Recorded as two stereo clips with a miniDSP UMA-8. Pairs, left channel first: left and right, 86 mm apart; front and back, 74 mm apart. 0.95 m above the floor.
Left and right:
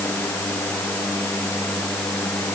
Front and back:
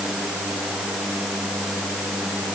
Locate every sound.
Only background noise.